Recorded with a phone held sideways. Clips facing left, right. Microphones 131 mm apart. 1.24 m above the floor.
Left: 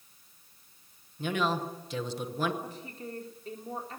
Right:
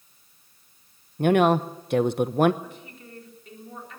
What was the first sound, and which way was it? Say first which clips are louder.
A woman speaking: right 11 dB; 60° right (ahead or behind).